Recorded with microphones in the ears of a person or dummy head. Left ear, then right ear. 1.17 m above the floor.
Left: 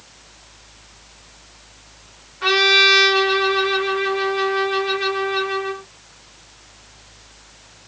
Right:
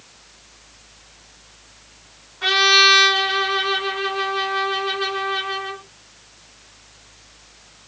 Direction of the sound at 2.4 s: 5° right (ahead or behind).